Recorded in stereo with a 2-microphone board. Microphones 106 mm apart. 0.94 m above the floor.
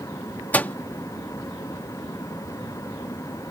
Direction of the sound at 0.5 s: 15° left (ahead or behind).